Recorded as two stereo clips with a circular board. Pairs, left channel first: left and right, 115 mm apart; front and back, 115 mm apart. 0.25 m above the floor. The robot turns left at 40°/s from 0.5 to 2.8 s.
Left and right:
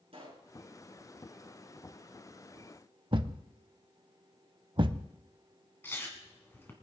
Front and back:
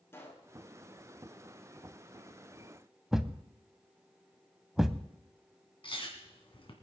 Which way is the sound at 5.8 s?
25° left.